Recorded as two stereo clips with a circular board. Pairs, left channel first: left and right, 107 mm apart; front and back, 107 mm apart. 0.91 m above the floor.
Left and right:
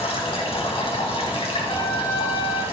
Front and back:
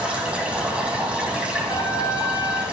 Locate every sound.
0.0 s running water: 100° left, 4.5 m
1.7 s a trumpet: 45° left, 4 m